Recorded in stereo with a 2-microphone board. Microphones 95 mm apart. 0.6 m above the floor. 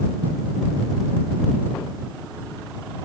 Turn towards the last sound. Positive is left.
No sound to turn to.